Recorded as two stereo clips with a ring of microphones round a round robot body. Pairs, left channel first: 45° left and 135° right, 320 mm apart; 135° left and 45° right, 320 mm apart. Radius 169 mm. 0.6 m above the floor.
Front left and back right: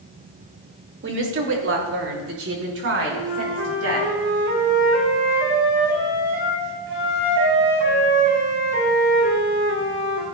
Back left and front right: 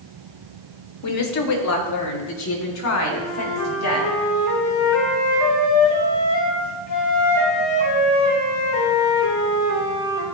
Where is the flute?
170° left, 3.5 m.